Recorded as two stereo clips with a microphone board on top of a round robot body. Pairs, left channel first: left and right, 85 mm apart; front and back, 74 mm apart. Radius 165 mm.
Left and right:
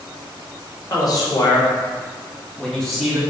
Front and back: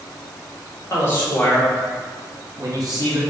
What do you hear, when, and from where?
0.9 s a man speaking: 50° left, 1.4 m; by 3.2 s 175° right, 1.2 m